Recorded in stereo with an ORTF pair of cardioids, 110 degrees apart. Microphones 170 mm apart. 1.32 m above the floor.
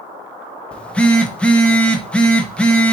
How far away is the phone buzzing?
About 0.8 m.